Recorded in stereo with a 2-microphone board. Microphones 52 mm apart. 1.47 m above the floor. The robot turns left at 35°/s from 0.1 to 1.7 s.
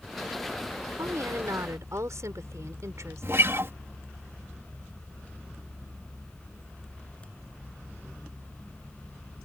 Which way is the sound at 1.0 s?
75° right (ahead or behind).